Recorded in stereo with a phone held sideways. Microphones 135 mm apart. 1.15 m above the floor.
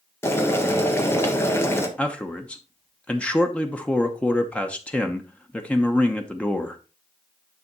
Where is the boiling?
20° left (ahead or behind), 1.3 m.